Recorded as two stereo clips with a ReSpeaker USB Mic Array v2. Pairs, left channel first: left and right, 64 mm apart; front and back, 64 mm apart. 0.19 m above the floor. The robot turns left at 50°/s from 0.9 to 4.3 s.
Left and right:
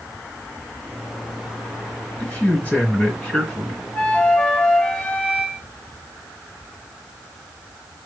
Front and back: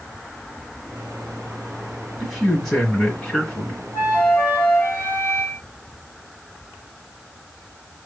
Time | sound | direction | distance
2.2 | a man speaking | 100° left | 1.5 m
3.9 | a flute | 35° left | 1.8 m